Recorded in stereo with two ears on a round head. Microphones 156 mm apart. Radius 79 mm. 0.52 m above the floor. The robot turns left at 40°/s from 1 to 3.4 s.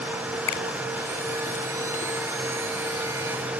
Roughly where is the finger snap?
Left.